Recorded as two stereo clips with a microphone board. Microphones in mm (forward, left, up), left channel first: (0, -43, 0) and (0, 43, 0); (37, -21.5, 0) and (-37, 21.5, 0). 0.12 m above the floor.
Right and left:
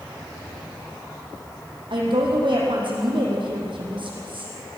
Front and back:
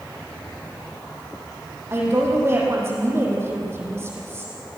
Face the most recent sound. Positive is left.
turn(degrees=90)